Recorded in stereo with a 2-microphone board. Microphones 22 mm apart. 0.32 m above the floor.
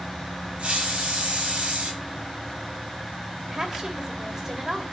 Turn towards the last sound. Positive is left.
turn(degrees=-30)  # may be behind; listen again after turning